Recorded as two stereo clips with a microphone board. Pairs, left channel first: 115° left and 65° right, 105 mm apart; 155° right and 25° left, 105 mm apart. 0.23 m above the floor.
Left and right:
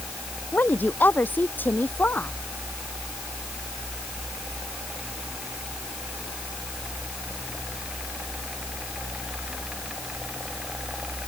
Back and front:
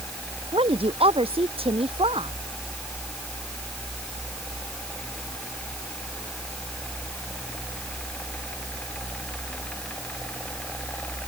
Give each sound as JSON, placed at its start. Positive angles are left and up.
{"t": 0.5, "sound": "a woman speaking", "azimuth_deg": 40}